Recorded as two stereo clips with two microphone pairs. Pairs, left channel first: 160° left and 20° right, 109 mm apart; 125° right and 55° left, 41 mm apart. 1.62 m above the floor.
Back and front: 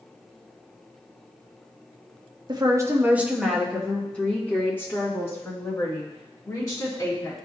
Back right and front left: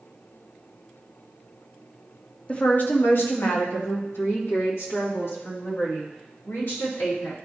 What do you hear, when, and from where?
2.5 s a woman speaking: 65° right, 0.8 m; by 7.4 s 140° right, 4 m